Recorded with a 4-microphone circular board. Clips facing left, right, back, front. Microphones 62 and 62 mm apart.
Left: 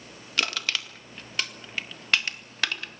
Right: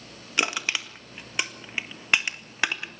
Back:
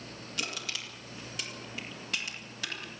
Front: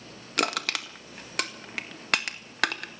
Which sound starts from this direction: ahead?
Crushing, at 0.4 s.